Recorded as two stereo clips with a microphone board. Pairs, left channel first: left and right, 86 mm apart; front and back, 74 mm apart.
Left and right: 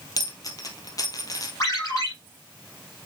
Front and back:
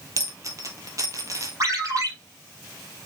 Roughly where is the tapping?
No tapping in this recording.